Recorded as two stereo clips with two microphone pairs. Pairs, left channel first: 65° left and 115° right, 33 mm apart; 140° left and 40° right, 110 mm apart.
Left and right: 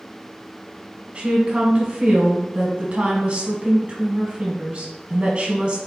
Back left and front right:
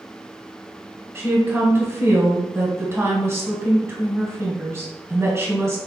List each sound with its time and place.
1.1 s a woman speaking: 95° right, 1.4 m